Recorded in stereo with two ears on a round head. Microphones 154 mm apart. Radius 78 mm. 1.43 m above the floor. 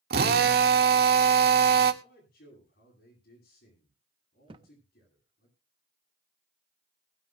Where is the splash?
I don't hear a splash.